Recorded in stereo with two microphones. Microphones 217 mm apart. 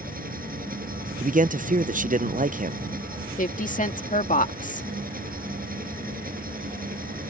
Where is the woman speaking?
35° left (ahead or behind).